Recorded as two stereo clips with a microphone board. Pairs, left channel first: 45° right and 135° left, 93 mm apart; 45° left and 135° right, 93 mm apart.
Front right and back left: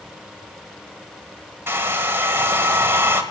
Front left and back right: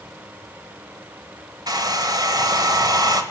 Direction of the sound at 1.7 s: 165° right.